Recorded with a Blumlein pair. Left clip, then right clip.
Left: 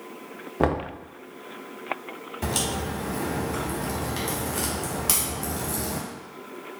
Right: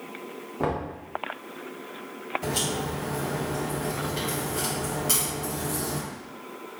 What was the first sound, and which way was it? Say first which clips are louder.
Knocking: left 4 dB; 25° left.